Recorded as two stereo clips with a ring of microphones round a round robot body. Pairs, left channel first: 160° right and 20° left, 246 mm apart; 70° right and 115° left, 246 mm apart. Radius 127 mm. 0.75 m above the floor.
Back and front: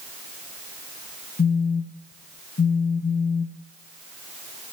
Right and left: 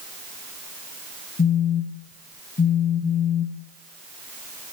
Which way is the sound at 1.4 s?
110° right.